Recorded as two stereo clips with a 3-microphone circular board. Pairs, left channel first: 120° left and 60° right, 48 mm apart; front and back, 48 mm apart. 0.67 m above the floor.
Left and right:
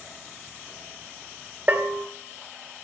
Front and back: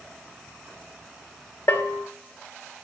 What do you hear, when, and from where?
1.7 s a bell: 20° right, 0.7 m